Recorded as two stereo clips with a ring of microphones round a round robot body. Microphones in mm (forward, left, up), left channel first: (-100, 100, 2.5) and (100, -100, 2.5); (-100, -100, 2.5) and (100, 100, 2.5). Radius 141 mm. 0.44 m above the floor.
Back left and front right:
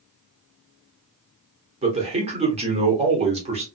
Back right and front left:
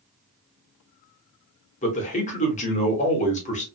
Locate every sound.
1.8 s a man speaking: 95° right, 1.0 m